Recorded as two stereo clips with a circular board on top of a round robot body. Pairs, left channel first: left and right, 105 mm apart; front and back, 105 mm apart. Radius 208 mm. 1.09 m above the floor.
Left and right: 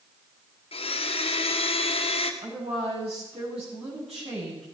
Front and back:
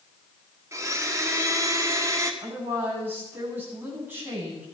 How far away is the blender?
About 1.5 m.